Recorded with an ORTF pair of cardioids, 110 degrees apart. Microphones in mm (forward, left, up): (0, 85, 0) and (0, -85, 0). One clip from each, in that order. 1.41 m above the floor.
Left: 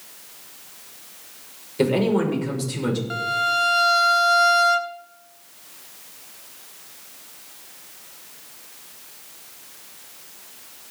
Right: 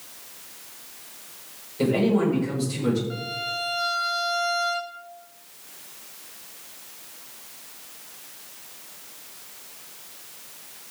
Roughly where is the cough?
I don't hear a cough.